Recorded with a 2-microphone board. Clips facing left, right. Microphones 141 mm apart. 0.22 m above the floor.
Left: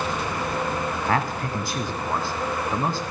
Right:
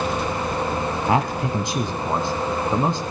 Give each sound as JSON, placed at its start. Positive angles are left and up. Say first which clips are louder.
{"t": 1.1, "sound": "a man speaking", "louder": "right 5 dB", "side_deg": -20, "distance_m": 1.3}